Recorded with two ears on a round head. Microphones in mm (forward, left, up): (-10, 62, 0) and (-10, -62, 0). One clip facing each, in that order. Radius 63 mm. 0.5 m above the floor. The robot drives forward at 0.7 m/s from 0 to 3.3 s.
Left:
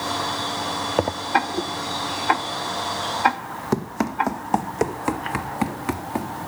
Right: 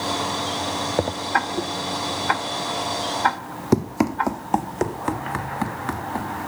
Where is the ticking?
25° left (ahead or behind), 0.8 m; by 4.3 s 20° left (ahead or behind), 1.1 m.